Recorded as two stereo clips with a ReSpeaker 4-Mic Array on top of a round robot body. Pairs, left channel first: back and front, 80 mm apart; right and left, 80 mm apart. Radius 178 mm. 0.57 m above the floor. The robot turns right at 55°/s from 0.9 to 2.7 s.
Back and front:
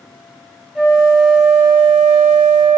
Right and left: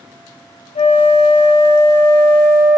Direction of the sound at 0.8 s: 85° right.